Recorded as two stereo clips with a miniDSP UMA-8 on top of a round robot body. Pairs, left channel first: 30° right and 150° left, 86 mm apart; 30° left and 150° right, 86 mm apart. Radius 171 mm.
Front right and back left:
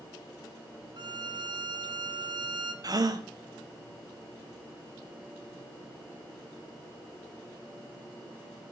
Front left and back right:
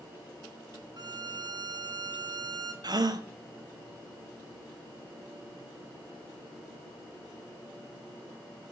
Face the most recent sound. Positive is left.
turn(degrees=-175)